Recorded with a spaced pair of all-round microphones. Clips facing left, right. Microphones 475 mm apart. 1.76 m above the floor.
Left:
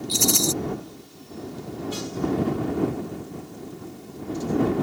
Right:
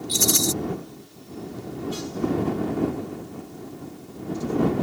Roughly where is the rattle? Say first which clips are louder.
Even; right.